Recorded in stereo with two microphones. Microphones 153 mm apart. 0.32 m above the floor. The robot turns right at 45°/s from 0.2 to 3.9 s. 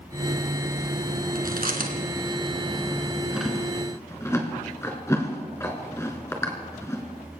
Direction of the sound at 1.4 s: 80° right.